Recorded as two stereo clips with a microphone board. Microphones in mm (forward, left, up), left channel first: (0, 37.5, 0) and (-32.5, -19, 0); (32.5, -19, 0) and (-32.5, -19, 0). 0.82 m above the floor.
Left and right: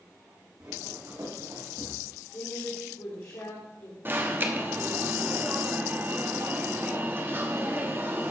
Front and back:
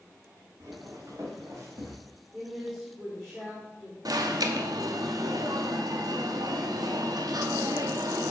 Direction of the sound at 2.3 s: 90° left.